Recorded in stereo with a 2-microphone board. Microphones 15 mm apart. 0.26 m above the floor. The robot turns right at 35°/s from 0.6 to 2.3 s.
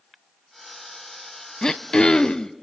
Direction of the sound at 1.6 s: 45° left (ahead or behind).